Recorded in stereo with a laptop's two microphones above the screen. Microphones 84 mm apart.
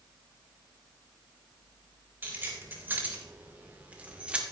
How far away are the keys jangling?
About 3.5 m.